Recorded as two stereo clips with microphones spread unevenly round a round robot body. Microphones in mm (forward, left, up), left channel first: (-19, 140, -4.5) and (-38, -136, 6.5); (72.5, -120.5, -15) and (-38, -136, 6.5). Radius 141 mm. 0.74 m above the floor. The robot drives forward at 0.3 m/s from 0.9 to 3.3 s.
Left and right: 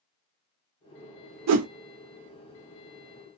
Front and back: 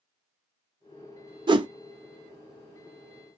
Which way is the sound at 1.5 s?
125° right.